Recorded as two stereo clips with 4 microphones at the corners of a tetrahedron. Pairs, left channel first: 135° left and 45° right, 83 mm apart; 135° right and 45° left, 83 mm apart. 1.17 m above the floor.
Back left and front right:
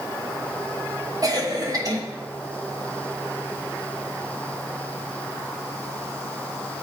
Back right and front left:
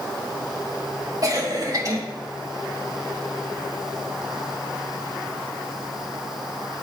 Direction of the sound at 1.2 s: 5° right.